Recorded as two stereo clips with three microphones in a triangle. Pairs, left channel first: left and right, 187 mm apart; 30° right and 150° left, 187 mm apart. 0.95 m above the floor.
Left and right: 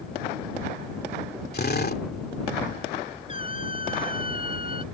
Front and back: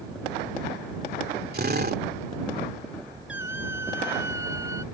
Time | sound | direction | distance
1.5 | a drill | 120° left | ?
3.3 | a squeak | 30° right | ?